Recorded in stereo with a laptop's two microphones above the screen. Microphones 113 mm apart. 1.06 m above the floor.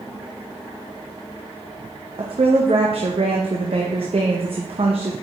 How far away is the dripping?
I don't hear dripping.